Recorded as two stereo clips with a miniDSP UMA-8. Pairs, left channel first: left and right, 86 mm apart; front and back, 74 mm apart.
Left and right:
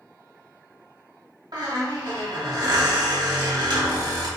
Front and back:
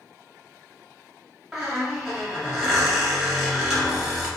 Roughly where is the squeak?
Right.